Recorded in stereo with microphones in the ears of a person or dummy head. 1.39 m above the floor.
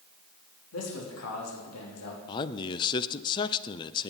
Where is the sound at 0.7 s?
80° left, 3.5 m.